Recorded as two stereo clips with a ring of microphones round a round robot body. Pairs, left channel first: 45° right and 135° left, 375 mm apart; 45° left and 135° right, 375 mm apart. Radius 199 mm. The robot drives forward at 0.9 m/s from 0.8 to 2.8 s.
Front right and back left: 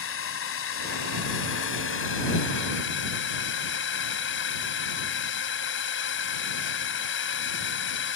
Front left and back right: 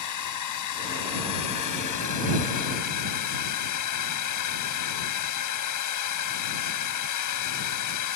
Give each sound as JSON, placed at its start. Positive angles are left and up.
{"t": 0.0, "sound": "a drone", "azimuth_deg": 10}